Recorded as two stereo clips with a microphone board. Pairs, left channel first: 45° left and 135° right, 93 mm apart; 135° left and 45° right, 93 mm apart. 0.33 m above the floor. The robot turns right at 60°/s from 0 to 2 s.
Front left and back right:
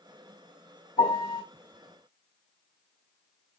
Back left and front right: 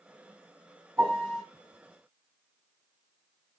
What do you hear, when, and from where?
1.0 s a piano: 20° left, 2.5 m; by 1.4 s 45° left, 2.5 m